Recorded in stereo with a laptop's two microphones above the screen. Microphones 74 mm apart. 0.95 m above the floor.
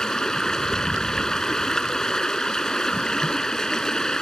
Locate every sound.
0.0 s running water: 10° left (ahead or behind)